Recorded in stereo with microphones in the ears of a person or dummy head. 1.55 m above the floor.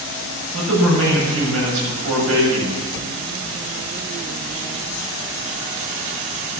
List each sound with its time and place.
0.5 s a man speaking: 80° right, 8 m